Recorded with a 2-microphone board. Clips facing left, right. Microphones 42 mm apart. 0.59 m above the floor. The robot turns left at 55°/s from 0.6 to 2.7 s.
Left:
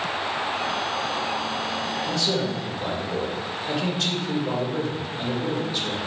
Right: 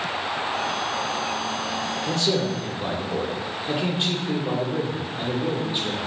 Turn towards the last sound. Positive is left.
turn(degrees=-150)